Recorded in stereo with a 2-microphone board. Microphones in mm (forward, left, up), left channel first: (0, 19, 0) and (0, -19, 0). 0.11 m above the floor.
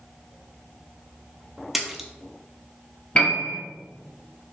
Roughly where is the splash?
Centre.